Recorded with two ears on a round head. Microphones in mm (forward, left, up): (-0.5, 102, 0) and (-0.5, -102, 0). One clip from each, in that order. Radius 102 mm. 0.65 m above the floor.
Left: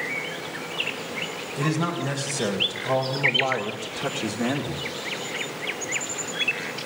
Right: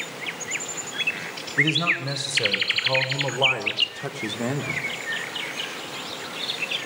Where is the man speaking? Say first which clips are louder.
Right 7 dB; 40° right (ahead or behind), 3.5 m; by 4.8 s centre (ahead or behind), 1.7 m.